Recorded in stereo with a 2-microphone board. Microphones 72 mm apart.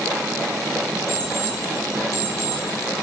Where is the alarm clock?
35° right (ahead or behind), 9 m.